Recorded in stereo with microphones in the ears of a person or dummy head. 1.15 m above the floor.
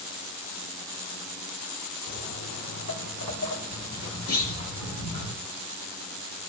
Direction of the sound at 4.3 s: 80° left.